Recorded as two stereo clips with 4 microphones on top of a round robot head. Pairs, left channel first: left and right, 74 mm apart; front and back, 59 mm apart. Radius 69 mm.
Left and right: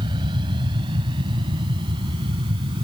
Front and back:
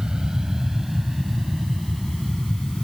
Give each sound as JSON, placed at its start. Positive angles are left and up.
{"t": 0.0, "sound": "an aircraft", "azimuth_deg": -95}